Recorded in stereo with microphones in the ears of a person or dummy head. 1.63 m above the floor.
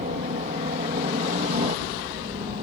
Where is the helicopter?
45° right (ahead or behind); by 2.6 s 40° right (ahead or behind).